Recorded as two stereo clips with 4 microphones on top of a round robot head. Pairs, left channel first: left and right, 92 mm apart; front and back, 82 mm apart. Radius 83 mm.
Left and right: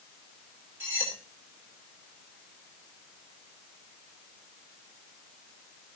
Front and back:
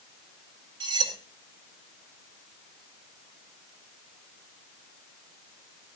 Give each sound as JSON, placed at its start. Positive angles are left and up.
{"t": 0.8, "sound": "cutlery clinking", "azimuth_deg": -160, "distance_m": 4.0}